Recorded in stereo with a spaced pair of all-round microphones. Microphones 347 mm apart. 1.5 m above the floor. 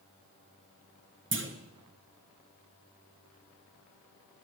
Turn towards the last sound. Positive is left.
turn(degrees=-35)  # may be behind; listen again after turning